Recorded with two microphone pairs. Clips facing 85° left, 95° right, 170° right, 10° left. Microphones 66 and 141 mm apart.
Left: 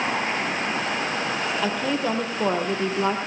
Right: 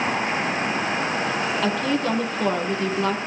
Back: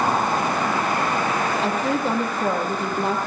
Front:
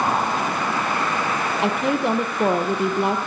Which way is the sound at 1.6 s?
5° left.